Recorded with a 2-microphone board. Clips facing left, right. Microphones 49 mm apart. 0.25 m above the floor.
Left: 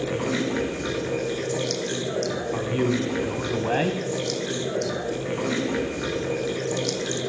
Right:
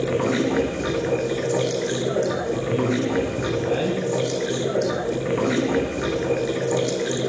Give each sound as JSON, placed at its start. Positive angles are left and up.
{"t": 0.0, "sound": "running water", "side_deg": -25, "distance_m": 1.1}
{"t": 2.5, "sound": "a man speaking", "side_deg": 45, "distance_m": 1.2}